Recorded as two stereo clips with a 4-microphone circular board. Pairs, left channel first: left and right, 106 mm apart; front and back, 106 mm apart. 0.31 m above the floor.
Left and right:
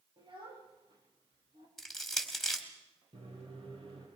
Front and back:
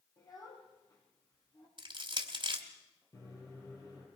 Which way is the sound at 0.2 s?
55° right.